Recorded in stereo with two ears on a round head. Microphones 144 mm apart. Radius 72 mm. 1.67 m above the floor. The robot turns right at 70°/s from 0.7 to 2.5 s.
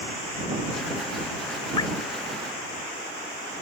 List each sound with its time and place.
1.8 s dripping: 30° left (ahead or behind); by 1.9 s 20° left (ahead or behind)